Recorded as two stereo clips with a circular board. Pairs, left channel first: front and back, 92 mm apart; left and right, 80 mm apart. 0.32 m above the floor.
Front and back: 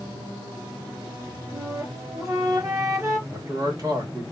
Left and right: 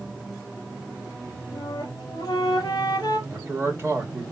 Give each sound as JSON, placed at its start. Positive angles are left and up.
{"t": 1.5, "sound": "a flute", "azimuth_deg": 130, "distance_m": 2.5}
{"t": 3.3, "sound": "a man speaking", "azimuth_deg": -140, "distance_m": 2.5}